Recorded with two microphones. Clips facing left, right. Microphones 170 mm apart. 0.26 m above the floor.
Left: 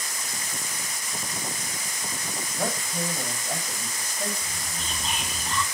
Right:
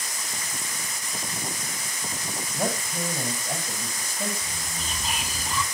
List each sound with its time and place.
2.5 s a man speaking: 10° right (ahead or behind), 7.5 m
4.4 s whispering: 5° right (ahead or behind), 1.9 m